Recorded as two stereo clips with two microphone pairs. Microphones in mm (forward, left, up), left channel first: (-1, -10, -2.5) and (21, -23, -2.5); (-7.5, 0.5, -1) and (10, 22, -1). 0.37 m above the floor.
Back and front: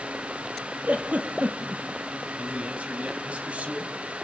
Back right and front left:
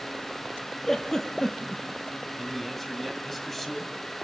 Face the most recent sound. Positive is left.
turn(degrees=-45)